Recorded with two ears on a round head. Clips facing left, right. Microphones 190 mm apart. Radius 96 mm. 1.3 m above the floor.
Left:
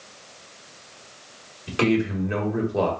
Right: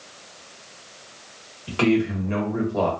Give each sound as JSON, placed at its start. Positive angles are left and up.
{"t": 1.7, "sound": "a man speaking", "side_deg": 20, "distance_m": 1.8}